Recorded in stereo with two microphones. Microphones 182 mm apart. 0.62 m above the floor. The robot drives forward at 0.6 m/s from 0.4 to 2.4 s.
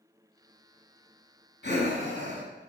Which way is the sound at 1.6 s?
65° left (ahead or behind).